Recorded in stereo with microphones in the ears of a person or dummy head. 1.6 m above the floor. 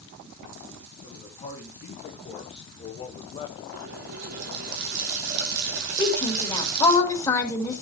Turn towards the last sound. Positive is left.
turn(degrees=15)  # may be behind; listen again after turning